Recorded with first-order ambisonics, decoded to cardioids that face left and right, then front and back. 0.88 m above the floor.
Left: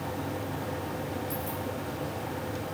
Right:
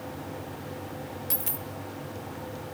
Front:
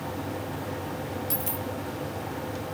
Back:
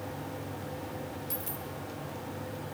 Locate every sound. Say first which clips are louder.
1.3 s a dropped coin: left 2 dB, front 7 dB; 60° right, 0.9 m